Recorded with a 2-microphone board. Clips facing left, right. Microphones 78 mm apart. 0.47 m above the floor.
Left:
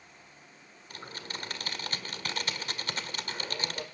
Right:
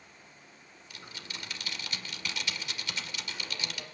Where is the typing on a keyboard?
40° left (ahead or behind), 1.9 m.